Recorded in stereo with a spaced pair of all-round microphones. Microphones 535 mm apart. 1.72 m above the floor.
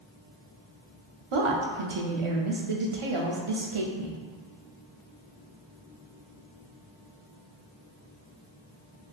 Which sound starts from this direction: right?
A woman speaking, at 1.3 s.